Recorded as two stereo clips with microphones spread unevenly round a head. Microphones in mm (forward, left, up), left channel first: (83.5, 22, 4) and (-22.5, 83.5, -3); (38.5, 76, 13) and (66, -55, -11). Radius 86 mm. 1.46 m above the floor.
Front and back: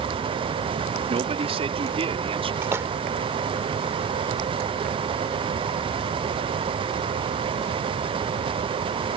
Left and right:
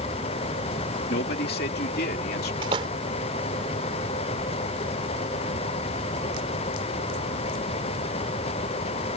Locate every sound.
1.1 s a man speaking: 110° left
2.6 s a splash: 140° right